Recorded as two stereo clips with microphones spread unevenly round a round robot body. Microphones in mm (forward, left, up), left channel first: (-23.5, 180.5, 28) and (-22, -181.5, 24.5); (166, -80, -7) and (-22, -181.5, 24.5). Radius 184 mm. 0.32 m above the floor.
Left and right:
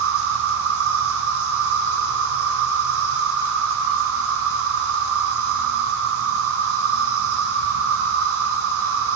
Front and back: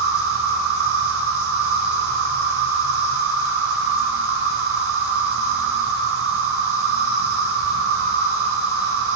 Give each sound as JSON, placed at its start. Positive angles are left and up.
{"t": 0.0, "sound": "an insect", "azimuth_deg": -140, "distance_m": 5.0}